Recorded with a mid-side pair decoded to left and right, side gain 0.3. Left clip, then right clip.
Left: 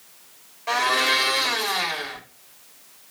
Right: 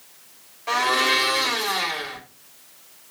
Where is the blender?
20° left, 1.8 m.